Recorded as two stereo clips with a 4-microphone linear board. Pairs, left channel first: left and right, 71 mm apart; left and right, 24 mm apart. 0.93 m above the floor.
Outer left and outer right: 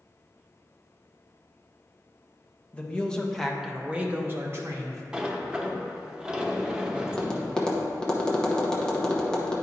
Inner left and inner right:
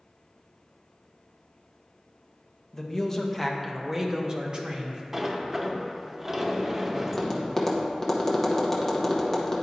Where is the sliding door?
15° right (ahead or behind), 0.6 m.